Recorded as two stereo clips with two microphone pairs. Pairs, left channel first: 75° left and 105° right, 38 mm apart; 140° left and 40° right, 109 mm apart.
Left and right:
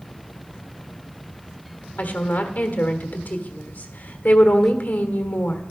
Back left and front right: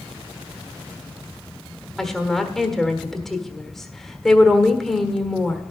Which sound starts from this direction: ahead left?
A woman speaking, at 2.0 s.